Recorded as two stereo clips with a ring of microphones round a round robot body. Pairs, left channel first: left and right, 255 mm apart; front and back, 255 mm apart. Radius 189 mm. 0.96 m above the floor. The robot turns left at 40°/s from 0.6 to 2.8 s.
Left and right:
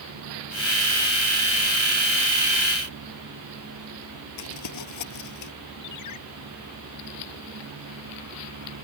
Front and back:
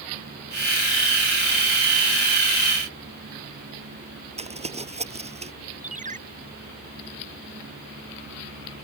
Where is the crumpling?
115° left.